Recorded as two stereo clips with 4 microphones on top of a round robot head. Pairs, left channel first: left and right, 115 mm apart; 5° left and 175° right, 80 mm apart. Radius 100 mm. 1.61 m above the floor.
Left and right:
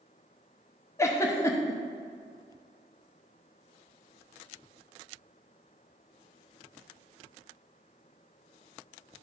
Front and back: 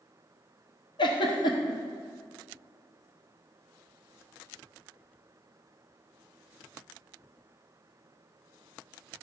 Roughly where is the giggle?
Ahead left.